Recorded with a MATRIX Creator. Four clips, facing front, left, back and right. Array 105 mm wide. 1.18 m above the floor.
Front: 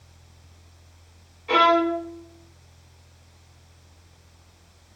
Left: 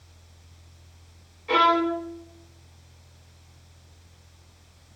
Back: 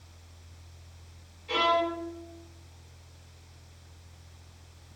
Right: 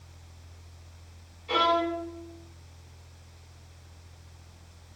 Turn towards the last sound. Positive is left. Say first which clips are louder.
# left 4 dB, front 8 dB
turn(degrees=45)